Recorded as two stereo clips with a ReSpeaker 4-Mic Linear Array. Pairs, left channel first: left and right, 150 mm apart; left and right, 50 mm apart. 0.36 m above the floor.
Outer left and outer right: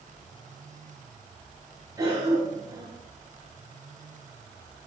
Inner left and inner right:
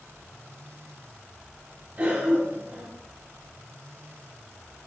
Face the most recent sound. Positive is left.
turn(degrees=-20)  # may be behind; listen again after turning